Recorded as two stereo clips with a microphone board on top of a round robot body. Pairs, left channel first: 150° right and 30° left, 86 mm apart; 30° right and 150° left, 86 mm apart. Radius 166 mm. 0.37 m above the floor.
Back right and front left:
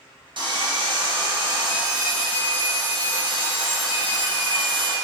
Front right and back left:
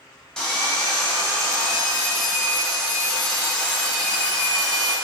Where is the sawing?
50° left, 0.9 m.